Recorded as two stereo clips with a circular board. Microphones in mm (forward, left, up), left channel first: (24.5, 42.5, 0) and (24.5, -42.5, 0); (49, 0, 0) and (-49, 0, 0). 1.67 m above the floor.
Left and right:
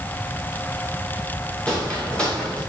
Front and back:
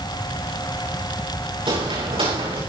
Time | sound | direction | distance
1.7 | footsteps | 170° left | 8 m